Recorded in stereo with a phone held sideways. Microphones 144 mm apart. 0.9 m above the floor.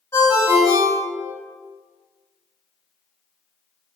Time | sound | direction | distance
0.1 | a ringtone | 25° left (ahead or behind) | 1.0 m